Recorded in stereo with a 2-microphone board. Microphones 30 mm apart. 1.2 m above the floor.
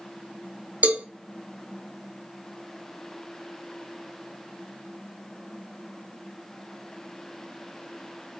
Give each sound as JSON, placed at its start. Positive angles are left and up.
{"t": 0.8, "sound": "a cowbell", "side_deg": -55, "distance_m": 0.5}